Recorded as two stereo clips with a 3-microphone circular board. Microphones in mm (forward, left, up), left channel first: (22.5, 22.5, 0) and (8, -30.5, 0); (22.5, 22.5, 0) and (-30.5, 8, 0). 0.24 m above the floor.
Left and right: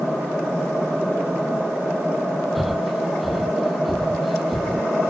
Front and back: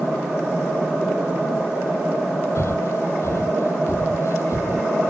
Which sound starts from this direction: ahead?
Breathing, at 2.5 s.